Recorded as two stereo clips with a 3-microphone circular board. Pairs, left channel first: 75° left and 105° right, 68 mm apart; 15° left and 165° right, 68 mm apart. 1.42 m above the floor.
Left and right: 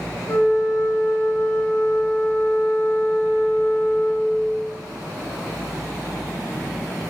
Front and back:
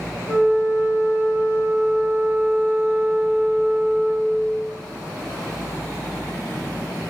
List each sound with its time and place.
0.3 s a flute: 130° left, 6.5 m